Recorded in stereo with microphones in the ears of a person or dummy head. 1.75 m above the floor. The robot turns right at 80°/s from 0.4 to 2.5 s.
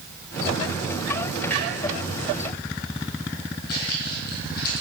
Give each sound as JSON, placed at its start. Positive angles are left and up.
{"t": 1.5, "sound": "a clunk", "side_deg": 0, "distance_m": 4.0}
{"t": 3.7, "sound": "footsteps", "side_deg": 50, "distance_m": 2.5}